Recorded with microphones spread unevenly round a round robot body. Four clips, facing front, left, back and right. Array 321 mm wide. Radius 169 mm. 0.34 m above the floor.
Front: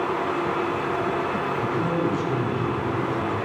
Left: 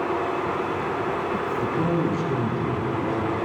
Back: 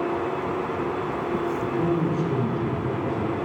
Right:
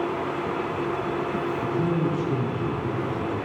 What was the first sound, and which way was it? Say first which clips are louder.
A man speaking: left 2 dB, front 1 dB; 65° left.